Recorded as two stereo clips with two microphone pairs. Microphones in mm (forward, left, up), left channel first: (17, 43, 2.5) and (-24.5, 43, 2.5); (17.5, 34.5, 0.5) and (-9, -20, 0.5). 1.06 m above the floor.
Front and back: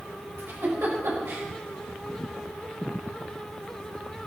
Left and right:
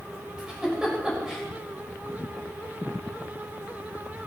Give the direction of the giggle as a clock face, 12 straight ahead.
6 o'clock.